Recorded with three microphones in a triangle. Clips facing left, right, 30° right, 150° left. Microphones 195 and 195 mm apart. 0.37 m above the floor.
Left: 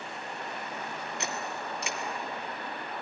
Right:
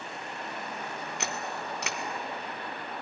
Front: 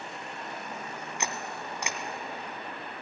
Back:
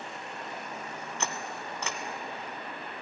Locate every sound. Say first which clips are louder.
1.2 s a camera shutter: even, even; 105° right, 1.5 m